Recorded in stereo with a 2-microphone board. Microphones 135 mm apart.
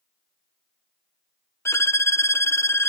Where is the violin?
20° left (ahead or behind), 0.6 m.